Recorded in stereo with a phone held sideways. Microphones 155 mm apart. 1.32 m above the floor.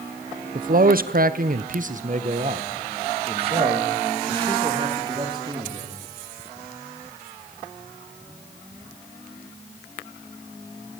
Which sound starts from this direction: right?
A man speaking, at 0.6 s.